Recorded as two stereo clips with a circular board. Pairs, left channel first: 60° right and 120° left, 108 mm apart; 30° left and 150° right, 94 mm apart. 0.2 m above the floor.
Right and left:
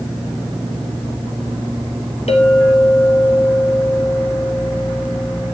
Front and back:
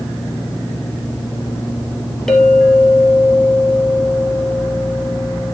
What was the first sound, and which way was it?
A clink, 55° right.